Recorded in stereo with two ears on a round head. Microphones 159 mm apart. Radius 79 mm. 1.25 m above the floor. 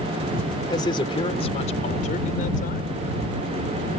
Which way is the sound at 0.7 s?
25° left (ahead or behind).